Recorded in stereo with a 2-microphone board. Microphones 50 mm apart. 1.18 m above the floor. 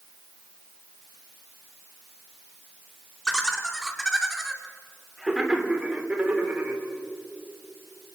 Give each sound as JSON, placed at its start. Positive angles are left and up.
{"t": 3.2, "sound": "laughter", "side_deg": 10, "distance_m": 4.0}